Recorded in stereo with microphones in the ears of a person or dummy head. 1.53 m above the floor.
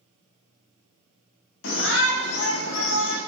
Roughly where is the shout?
Left.